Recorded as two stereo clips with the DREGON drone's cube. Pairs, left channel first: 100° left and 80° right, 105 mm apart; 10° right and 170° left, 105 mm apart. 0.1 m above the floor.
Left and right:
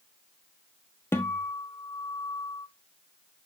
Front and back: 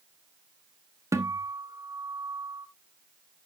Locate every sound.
1.1 s a guitar: 145° left, 0.9 m